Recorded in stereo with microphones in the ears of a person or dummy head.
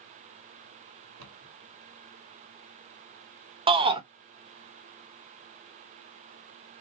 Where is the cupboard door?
70° right (ahead or behind), 2 m.